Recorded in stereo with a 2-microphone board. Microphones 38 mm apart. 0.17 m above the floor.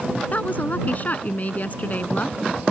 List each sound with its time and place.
0.3 s a woman speaking: 45° left (ahead or behind)